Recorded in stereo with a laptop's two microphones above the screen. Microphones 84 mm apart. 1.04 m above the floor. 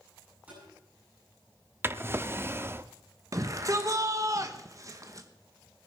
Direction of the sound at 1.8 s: 30° right (ahead or behind).